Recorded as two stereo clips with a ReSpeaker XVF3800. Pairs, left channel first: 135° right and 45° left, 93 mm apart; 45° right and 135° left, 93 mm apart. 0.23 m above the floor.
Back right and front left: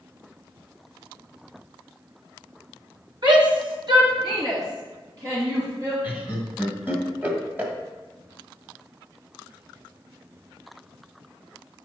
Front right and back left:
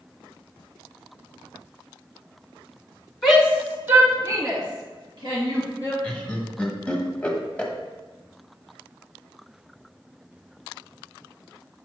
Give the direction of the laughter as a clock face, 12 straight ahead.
12 o'clock.